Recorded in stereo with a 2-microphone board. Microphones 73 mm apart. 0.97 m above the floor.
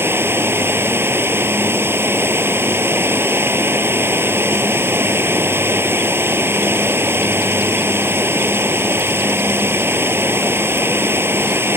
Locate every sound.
0.0 s running water: 30° right (ahead or behind)